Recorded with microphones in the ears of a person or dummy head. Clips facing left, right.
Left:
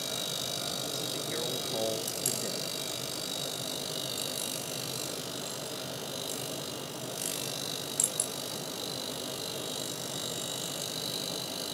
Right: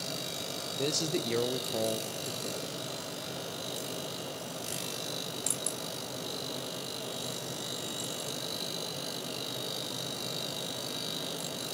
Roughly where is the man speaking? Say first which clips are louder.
Right 11 dB; right.